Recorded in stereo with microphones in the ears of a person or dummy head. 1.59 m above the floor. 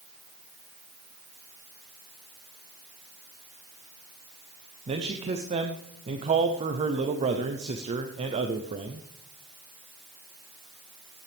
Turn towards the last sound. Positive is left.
turn(degrees=-30)  # may be behind; listen again after turning